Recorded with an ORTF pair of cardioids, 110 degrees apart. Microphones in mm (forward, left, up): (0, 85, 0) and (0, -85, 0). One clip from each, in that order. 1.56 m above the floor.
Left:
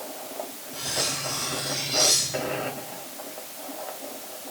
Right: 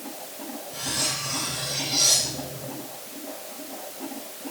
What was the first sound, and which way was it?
Cutlery clinking, 10° right.